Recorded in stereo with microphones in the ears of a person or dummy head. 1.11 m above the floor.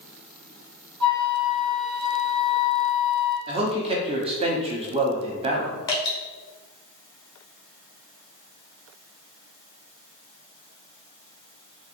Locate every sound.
1.0 s a flute: 25° right (ahead or behind), 1.7 m
3.5 s a man speaking: 30° right (ahead or behind), 0.8 m
5.9 s dripping: 25° left (ahead or behind), 1.1 m